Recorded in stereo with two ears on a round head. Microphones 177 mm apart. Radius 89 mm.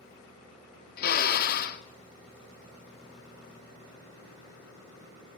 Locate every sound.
1.0 s a drill: 50° left (ahead or behind), 1.7 m